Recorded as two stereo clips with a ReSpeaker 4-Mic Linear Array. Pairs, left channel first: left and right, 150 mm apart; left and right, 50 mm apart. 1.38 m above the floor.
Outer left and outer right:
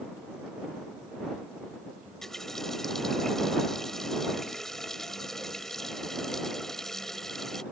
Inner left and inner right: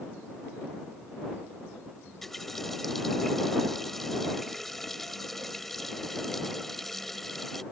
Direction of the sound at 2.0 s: 5° left (ahead or behind).